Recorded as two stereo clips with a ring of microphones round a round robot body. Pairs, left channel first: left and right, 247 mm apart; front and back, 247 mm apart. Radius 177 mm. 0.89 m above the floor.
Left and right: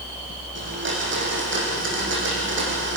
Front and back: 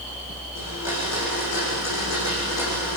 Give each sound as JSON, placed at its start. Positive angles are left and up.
{"t": 0.6, "sound": "a blender", "azimuth_deg": -50, "distance_m": 8.0}